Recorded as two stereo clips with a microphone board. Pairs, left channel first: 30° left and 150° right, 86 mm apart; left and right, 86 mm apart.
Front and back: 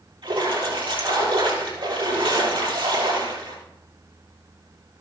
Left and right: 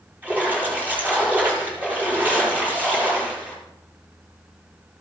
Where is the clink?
No clink in this recording.